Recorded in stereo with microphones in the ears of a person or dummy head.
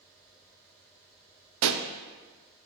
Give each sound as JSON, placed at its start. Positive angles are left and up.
{"t": 1.6, "sound": "a pop", "side_deg": -75, "distance_m": 0.5}